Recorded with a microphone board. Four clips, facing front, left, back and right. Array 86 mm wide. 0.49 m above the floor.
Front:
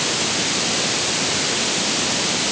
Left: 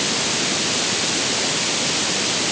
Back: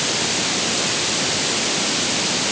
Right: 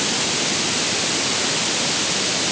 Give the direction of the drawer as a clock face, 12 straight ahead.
No drawer in this recording.